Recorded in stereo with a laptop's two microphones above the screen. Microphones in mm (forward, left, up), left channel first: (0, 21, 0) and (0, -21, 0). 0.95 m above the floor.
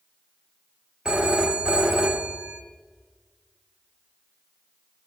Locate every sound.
1.1 s a phone ringing: 20° right (ahead or behind), 1.2 m